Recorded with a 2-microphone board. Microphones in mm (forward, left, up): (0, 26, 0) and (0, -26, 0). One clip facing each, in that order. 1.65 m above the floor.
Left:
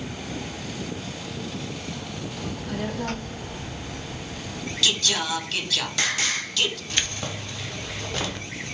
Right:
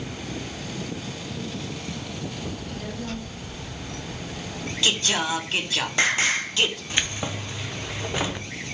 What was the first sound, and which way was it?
A child speaking, 65° left (ahead or behind).